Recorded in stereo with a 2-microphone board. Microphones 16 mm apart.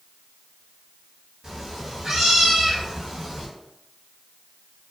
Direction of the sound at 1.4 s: 30° right (ahead or behind).